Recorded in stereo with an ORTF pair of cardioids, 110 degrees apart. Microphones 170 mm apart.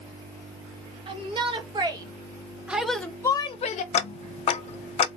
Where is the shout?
35° right, 1.7 m; by 3.8 s 55° left, 0.6 m.